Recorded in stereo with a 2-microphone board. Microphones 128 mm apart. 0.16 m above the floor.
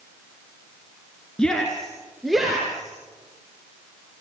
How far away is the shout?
About 2.5 m.